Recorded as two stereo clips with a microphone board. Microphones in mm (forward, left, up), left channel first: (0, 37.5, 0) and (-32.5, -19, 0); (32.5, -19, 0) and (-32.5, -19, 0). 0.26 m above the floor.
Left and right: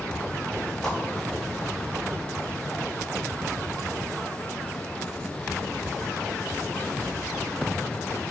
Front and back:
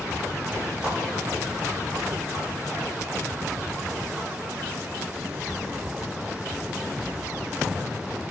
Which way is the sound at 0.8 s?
130° left.